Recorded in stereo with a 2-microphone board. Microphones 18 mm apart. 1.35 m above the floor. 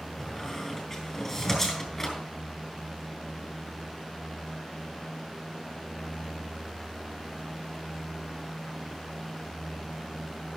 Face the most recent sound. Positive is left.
turn(degrees=20)  # may be behind; listen again after turning